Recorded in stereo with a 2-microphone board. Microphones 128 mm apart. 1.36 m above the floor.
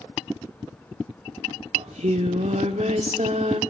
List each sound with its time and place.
1.8 s singing: 65° right (ahead or behind), 1.8 m